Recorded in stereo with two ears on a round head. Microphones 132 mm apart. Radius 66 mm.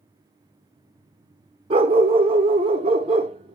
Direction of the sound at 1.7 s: 40° right (ahead or behind).